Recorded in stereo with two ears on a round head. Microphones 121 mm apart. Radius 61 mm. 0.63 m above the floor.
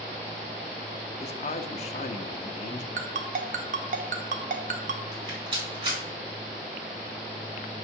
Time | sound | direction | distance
1.2 | a man speaking | 50° left (ahead or behind) | 0.8 m
3.0 | a ringtone | 60° right (ahead or behind) | 1.1 m
5.1 | a rattle | 35° right (ahead or behind) | 4.5 m